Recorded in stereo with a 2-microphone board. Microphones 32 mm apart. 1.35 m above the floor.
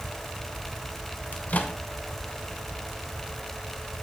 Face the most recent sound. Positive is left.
turn(degrees=55)  # may be behind; listen again after turning